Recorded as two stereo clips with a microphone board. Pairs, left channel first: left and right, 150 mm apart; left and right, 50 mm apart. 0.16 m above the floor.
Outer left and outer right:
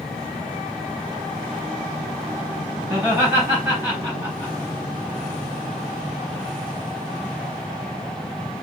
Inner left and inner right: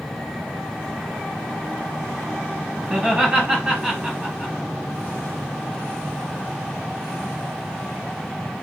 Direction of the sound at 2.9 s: 10° right (ahead or behind).